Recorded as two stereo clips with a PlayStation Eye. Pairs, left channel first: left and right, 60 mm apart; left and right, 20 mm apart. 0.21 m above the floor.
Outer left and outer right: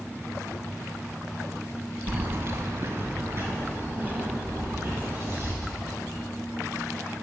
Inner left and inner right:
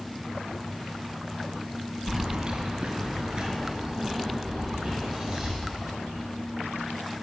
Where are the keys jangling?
40° right (ahead or behind), 0.8 m; by 5.5 s 35° right (ahead or behind), 4 m.